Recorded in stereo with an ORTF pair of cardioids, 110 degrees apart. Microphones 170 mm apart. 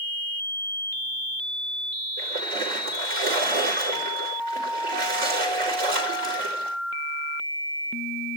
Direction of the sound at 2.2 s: 70° right.